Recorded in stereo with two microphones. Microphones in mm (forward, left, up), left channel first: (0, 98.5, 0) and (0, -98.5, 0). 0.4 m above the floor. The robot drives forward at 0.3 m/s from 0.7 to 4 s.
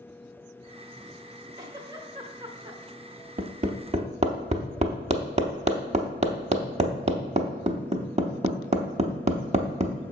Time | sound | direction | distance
1.6 | a giggle | 20° right (ahead or behind) | 1.2 m
3.4 | hammering | 45° right (ahead or behind) | 0.6 m